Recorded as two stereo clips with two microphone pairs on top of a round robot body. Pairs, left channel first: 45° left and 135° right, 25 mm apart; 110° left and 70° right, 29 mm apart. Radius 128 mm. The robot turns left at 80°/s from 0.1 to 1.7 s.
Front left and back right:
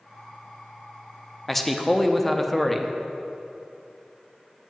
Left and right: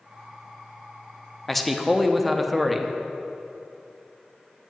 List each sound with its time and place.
1.5 s a man speaking: 45° left, 0.7 m; by 2.9 s 25° left, 0.7 m